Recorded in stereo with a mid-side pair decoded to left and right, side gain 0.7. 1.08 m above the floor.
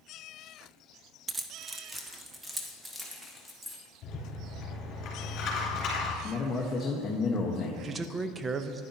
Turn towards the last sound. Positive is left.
turn(degrees=-25)